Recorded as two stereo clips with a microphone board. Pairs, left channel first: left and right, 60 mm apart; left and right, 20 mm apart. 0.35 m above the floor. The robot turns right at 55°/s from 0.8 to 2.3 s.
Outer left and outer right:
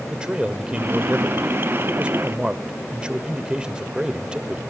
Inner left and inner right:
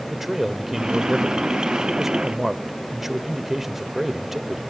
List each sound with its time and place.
0.1 s a man speaking: 15° right (ahead or behind), 0.9 m